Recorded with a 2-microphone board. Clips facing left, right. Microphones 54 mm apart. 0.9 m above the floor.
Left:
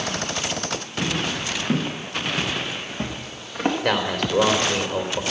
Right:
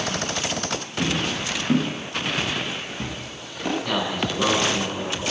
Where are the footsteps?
10° left (ahead or behind), 4.5 m; by 3.7 s 45° left (ahead or behind), 4 m.